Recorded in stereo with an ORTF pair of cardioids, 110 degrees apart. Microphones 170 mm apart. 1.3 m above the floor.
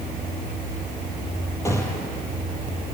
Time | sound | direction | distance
1.6 | a gunshot | 15° left | 5 m